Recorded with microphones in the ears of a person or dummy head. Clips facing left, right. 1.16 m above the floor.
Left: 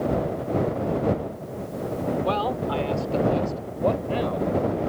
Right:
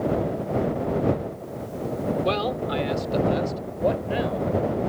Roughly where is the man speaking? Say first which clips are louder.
Even; right.